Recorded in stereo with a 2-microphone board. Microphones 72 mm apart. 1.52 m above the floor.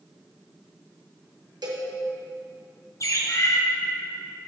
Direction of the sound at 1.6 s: 70° right (ahead or behind).